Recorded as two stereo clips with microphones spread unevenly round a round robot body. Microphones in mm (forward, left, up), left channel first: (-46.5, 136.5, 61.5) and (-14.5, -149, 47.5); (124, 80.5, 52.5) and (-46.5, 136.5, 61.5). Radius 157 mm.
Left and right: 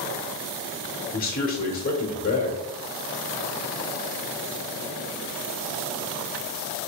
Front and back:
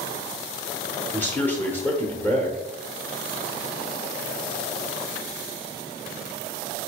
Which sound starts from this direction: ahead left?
A man speaking, at 1.1 s.